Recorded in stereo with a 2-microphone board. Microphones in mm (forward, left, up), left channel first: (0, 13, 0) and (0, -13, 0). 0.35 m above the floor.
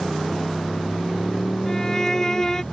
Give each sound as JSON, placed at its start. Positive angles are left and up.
{"t": 0.0, "sound": "a motorcycle", "side_deg": 15}
{"t": 1.7, "sound": "a violin", "side_deg": 25}